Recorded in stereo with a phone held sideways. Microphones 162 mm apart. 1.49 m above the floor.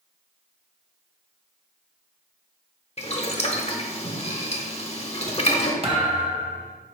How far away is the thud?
About 1.1 m.